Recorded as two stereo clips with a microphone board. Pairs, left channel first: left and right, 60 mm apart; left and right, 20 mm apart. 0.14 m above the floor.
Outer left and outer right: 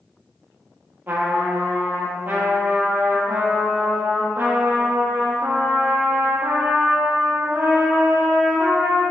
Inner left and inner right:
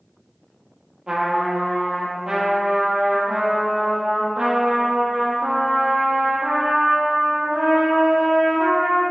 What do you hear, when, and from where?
1.1 s a trumpet: 35° right (ahead or behind), 2 m